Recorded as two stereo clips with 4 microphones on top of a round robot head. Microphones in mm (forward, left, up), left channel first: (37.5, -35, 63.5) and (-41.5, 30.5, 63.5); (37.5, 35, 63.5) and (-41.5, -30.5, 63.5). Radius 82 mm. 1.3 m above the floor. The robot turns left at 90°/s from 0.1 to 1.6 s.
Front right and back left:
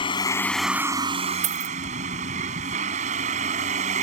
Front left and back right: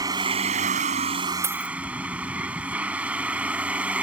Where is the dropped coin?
150° left; by 1.8 s 140° left.